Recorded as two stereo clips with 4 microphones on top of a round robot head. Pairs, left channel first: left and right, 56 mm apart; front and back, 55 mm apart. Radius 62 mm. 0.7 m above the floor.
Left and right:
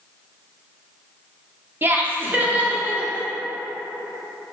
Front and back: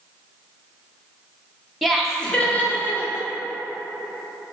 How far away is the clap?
I don't hear a clap.